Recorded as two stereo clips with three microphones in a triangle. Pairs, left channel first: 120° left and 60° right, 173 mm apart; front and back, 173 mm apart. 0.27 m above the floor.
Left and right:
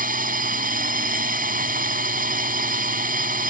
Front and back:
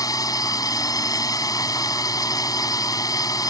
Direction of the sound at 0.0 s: 65° right.